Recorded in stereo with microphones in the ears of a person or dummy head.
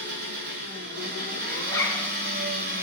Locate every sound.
0.0 s an engine running: 65° right (ahead or behind), 2.5 m
1.7 s a zipper: 20° left (ahead or behind), 0.6 m